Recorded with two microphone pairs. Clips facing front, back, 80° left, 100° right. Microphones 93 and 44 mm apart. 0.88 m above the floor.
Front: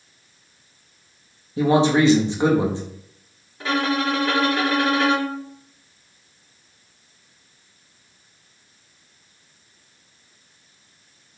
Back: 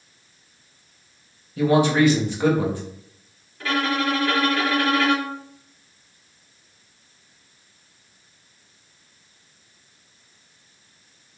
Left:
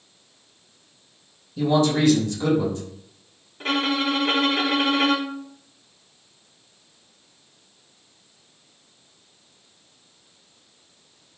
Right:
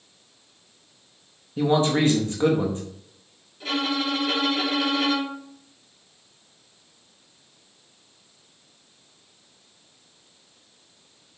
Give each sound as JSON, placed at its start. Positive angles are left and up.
{"t": 1.6, "sound": "a man speaking", "azimuth_deg": -60, "distance_m": 1.2}
{"t": 3.6, "sound": "a violin", "azimuth_deg": 65, "distance_m": 1.2}